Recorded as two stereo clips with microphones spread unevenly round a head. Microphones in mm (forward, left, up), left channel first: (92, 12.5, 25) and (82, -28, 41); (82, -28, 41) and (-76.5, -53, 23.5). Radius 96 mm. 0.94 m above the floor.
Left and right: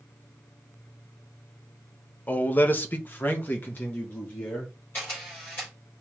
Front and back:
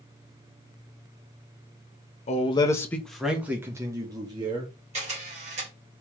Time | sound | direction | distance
2.3 | a man speaking | 60° left | 0.7 m
4.9 | a camera shutter | 135° left | 3.5 m